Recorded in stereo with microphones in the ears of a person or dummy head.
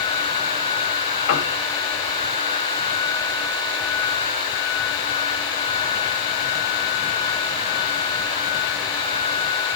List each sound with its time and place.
1.3 s a piano: 70° left (ahead or behind), 2.5 m